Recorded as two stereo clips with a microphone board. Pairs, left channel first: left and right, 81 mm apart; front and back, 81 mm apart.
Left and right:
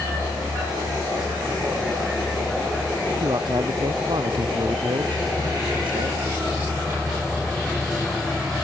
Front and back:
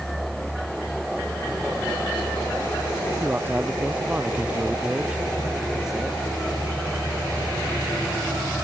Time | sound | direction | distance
3.2 | a man speaking | 110° right | ?